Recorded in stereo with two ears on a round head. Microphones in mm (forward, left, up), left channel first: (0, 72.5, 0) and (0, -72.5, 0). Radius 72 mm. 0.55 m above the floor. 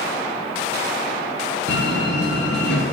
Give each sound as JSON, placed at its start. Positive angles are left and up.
{"t": 1.7, "sound": "a door slam", "side_deg": 80, "distance_m": 5.5}